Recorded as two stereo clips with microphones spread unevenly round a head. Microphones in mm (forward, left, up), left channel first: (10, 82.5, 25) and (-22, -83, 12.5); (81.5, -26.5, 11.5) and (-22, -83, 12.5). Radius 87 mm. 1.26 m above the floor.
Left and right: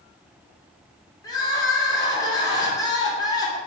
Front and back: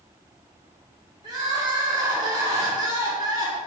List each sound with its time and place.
1.2 s crying: 150° left, 1.0 m